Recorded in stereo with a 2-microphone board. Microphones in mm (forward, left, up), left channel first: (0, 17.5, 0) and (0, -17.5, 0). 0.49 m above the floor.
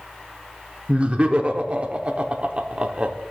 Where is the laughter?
35° right (ahead or behind), 0.9 m.